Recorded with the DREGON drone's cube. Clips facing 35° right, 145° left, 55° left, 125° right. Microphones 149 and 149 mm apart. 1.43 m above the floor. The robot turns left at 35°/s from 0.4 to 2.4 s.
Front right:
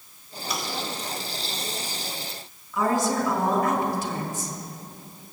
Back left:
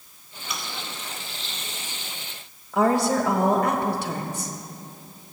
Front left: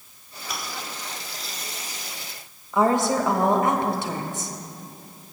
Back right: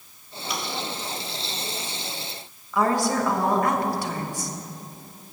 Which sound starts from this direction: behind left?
A woman speaking, at 2.7 s.